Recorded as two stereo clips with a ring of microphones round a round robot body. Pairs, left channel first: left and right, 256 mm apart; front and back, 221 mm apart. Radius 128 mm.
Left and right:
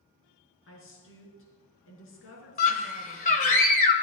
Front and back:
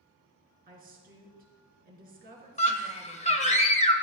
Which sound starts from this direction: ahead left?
A scream, at 2.6 s.